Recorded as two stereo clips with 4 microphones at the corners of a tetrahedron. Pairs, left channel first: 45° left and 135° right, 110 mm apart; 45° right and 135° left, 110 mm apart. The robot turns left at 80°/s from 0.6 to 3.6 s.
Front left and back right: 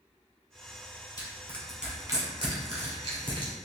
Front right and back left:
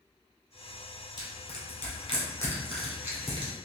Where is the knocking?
I don't hear knocking.